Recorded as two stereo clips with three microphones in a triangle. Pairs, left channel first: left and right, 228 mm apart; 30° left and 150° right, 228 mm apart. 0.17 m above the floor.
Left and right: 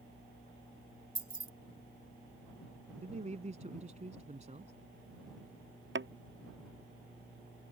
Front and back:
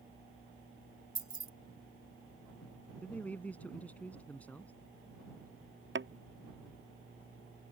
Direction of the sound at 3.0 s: 50° right.